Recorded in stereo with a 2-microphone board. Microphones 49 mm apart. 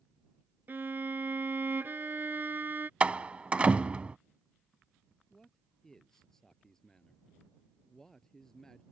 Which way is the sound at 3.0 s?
25° right (ahead or behind).